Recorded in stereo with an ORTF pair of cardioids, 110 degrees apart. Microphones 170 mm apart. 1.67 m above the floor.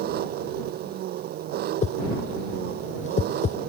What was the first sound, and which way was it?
An engine running, 70° right.